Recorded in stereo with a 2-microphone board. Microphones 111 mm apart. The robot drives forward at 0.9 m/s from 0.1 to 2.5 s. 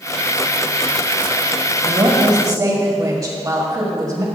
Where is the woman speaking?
35° right (ahead or behind), 1.1 m; by 4.2 s 30° right (ahead or behind), 1.4 m.